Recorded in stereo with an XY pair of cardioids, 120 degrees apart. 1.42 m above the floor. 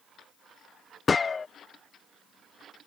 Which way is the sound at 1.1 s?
30° left.